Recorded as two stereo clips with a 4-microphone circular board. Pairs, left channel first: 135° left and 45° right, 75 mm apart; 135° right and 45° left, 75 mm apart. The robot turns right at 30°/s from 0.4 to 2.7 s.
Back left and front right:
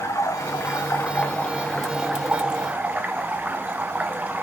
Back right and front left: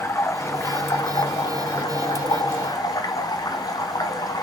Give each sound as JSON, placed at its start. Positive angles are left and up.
{"t": 0.0, "sound": "running water", "azimuth_deg": 175, "distance_m": 1.2}